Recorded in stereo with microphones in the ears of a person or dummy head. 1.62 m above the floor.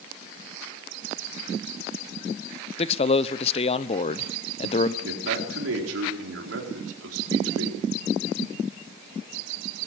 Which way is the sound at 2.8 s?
35° left (ahead or behind).